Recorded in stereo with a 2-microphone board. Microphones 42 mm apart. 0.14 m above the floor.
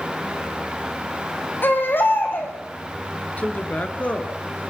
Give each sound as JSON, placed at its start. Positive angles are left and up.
{"t": 1.6, "sound": "a baby crying", "side_deg": 55, "distance_m": 4.0}
{"t": 3.4, "sound": "a man speaking", "side_deg": 40, "distance_m": 2.5}